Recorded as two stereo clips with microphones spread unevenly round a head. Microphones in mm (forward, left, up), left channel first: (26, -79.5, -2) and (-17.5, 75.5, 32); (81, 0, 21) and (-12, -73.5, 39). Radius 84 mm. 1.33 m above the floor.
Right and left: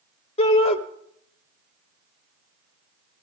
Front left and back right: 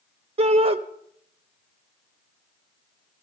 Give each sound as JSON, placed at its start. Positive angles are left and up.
{"t": 0.4, "sound": "a shout", "azimuth_deg": -105, "distance_m": 0.8}